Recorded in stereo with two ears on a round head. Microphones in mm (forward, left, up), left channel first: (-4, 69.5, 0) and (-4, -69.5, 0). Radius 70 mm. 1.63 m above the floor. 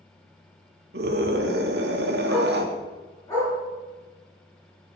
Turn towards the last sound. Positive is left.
turn(degrees=20)  # may be behind; listen again after turning